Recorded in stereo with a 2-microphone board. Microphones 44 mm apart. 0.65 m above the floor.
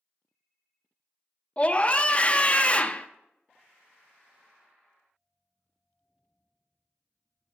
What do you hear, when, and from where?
1.6 s a scream: 30° left (ahead or behind), 0.6 m